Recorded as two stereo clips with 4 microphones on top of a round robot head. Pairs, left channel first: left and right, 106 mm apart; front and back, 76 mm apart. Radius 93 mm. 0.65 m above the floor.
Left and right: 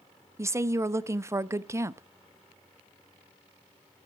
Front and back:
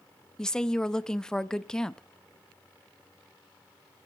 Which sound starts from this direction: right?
A woman speaking, at 0.4 s.